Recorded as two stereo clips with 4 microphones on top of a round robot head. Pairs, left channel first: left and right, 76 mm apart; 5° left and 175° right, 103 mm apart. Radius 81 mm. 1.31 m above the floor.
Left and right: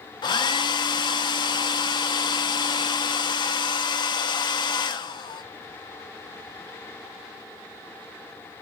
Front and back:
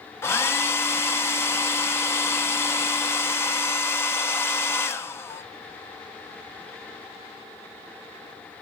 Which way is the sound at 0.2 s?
70° left.